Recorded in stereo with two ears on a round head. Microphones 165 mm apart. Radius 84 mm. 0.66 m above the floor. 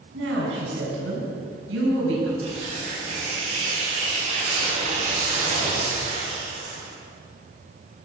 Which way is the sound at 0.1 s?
85° right.